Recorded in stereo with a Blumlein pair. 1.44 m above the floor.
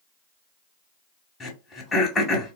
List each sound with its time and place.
1.4 s throat clearing: 15° left, 1.5 m